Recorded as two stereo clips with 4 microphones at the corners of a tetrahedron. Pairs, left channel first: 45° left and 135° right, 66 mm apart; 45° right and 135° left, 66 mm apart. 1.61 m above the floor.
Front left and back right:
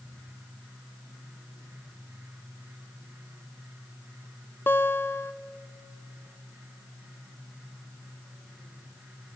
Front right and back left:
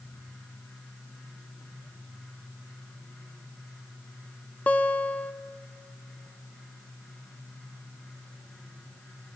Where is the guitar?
10° left, 0.8 m.